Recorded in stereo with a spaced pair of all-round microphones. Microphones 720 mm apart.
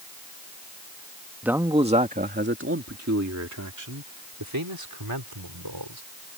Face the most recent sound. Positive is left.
turn(degrees=-35)  # may be behind; listen again after turning